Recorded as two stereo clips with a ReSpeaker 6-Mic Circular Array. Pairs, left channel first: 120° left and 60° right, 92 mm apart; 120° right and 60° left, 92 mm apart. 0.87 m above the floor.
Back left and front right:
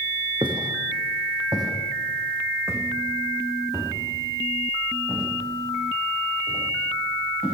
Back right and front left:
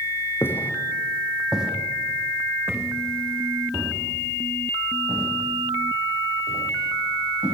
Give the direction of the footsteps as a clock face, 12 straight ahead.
2 o'clock.